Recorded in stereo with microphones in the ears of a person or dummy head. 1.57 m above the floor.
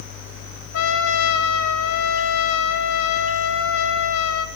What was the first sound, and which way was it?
A trumpet, 75° left (ahead or behind).